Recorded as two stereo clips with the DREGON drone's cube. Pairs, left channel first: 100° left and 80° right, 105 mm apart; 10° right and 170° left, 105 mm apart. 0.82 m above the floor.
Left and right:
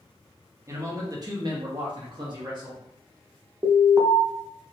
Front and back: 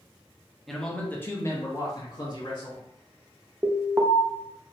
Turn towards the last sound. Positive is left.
turn(degrees=-130)